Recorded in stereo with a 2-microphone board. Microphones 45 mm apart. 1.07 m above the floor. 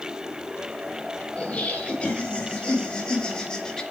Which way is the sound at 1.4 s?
20° left (ahead or behind).